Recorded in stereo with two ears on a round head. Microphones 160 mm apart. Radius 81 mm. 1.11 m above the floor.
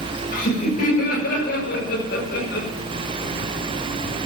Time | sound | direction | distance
0.3 | laughter | 50° left (ahead or behind) | 7.5 m